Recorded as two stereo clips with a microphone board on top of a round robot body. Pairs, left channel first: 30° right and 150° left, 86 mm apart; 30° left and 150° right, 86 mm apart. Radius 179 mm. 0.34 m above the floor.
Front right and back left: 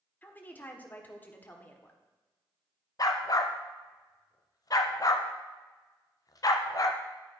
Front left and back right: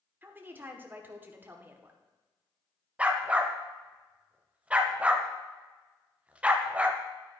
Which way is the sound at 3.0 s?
75° right.